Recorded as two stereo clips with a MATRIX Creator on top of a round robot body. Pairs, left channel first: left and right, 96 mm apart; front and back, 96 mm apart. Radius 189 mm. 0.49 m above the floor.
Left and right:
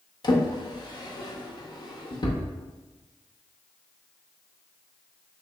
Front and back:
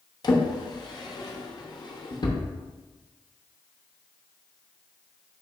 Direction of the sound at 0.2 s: 45° left.